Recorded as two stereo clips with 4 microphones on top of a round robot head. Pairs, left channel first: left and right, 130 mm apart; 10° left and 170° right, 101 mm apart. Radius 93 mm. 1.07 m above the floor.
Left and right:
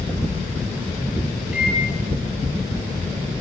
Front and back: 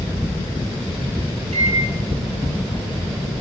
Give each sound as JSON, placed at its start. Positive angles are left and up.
{"t": 1.5, "sound": "a microwave", "azimuth_deg": -170, "distance_m": 9.5}